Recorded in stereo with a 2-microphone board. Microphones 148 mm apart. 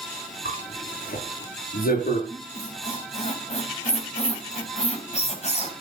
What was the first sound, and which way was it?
A zipper, 80° left.